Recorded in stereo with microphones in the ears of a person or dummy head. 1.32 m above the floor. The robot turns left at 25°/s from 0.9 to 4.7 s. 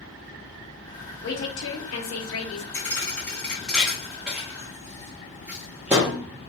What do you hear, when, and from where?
1.2 s a woman speaking: 120° left, 0.9 m; by 2.6 s 85° left, 0.9 m
2.7 s a thud: 15° left (ahead or behind), 0.7 m; by 6.2 s 5° right (ahead or behind), 0.7 m